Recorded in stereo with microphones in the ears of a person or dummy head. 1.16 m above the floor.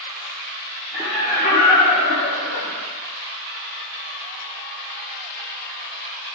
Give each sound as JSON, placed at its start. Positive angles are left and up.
{"t": 0.9, "sound": "laughter", "side_deg": 10, "distance_m": 0.8}